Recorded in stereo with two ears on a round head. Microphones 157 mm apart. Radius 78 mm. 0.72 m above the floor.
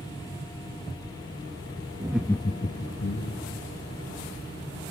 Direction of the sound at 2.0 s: 20° right (ahead or behind).